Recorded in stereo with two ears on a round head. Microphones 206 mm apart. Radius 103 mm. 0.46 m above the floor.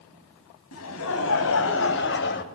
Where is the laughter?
70° left (ahead or behind), 4 m; by 2.5 s 50° left (ahead or behind), 2.5 m.